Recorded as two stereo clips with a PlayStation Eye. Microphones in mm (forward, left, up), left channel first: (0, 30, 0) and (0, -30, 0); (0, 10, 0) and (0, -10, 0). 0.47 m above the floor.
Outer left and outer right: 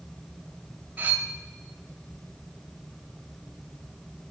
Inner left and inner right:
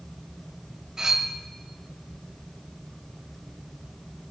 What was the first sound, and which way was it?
Cutlery clinking, 25° right (ahead or behind).